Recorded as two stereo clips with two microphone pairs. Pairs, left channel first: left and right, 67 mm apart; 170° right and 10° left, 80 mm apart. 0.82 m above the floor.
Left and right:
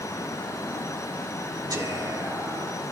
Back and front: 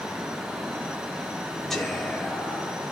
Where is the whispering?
80° right, 4.5 m.